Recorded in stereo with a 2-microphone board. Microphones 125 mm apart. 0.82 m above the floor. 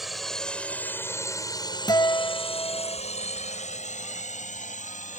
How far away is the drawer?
I don't hear a drawer.